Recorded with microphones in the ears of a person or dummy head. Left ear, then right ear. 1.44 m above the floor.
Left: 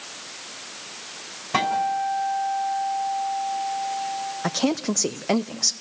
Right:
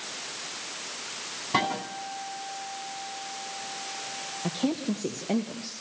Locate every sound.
1.5 s a guitar: 10° left (ahead or behind), 4 m
4.4 s a woman speaking: 55° left (ahead or behind), 0.6 m